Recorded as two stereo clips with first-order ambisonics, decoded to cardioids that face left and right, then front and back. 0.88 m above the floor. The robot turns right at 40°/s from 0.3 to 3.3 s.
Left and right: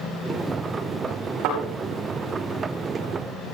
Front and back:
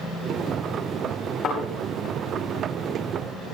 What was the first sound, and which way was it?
A thud, 65° right.